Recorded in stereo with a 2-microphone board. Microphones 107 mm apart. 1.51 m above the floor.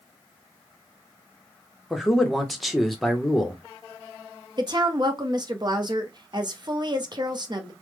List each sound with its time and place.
1.9 s a man speaking: centre (ahead or behind), 0.8 m
4.6 s a woman speaking: 40° right (ahead or behind), 0.7 m